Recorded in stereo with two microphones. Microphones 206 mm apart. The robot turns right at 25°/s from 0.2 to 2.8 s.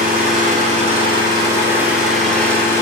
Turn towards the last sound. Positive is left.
turn(degrees=15)